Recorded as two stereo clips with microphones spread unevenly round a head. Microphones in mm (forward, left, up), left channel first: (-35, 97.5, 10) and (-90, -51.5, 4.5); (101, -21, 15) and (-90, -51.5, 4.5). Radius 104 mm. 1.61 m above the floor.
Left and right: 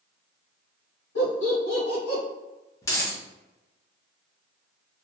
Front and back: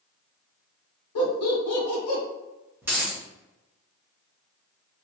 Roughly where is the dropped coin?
Behind left.